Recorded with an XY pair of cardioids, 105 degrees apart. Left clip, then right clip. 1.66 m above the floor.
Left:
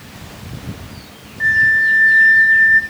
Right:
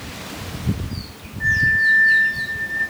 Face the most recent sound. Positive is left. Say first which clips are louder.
# left 4 dB
turn(degrees=65)